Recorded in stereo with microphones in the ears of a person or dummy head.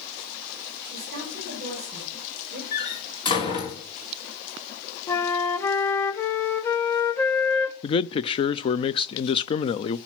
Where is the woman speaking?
55° right (ahead or behind), 5.5 m; by 2.6 s 40° right (ahead or behind), 5.5 m.